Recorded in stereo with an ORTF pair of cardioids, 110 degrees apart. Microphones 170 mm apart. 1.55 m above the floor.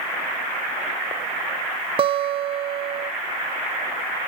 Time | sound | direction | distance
2.0 | a guitar | 30° right | 0.8 m